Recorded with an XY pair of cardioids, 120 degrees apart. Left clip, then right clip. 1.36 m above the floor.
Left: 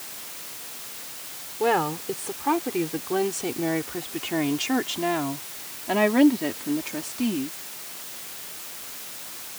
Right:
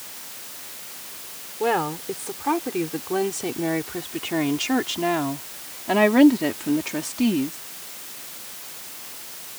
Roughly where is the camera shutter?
I don't hear a camera shutter.